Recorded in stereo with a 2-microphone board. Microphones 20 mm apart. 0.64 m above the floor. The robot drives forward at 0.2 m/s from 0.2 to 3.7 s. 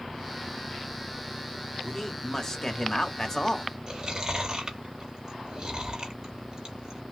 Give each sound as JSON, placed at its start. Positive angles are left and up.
{"t": 1.8, "sound": "a man speaking", "side_deg": 25, "distance_m": 0.9}
{"t": 3.9, "sound": "chewing", "side_deg": -35, "distance_m": 1.0}